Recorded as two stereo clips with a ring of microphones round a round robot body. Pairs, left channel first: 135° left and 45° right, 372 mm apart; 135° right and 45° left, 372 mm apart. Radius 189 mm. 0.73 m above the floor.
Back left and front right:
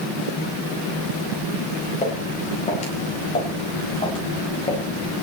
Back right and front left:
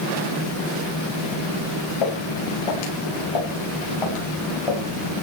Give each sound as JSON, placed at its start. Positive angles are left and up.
{"t": 2.0, "sound": "footsteps", "azimuth_deg": -155, "distance_m": 10.0}